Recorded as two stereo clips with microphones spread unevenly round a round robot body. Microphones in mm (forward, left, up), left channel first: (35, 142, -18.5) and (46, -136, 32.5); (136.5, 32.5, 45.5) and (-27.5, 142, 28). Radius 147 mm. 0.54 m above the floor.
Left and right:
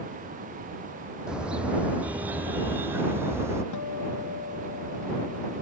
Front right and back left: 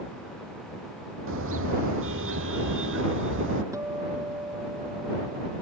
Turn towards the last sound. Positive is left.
turn(degrees=70)